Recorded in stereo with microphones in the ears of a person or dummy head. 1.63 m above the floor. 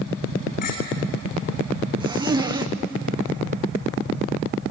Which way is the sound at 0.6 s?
50° left (ahead or behind).